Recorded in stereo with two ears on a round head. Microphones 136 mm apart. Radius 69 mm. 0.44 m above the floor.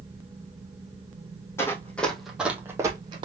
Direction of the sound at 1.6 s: 15° left (ahead or behind).